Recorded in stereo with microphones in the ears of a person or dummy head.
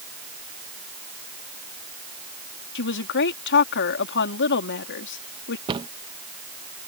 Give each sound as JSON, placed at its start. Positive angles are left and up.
{"t": 2.8, "sound": "a woman speaking", "side_deg": 65}
{"t": 5.7, "sound": "a cupboard door", "side_deg": -30}